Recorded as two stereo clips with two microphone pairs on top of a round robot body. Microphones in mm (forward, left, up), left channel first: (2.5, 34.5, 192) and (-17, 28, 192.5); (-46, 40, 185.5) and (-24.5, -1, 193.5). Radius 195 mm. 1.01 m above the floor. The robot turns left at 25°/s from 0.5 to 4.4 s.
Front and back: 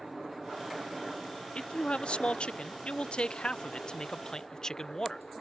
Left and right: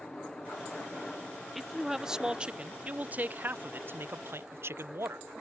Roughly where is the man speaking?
Ahead left.